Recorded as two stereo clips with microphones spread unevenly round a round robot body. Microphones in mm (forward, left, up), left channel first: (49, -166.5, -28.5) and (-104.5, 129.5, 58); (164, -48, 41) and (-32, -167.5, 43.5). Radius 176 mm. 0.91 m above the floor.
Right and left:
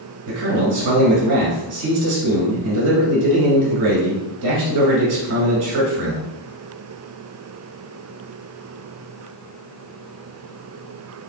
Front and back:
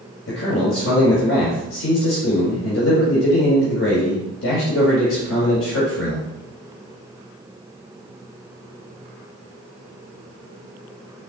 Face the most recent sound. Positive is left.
turn(degrees=85)